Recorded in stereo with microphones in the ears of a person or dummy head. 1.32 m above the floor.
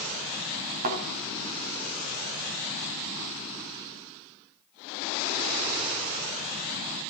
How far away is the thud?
About 2.5 m.